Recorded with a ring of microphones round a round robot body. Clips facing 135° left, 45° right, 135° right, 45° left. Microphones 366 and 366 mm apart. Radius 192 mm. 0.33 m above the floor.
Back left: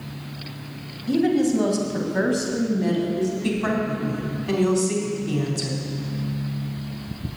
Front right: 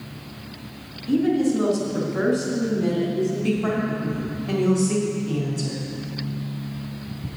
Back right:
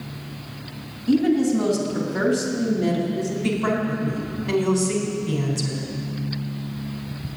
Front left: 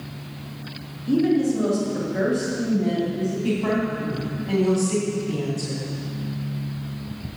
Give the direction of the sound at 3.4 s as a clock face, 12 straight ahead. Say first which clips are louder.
Front right 1 dB, even; 6 o'clock.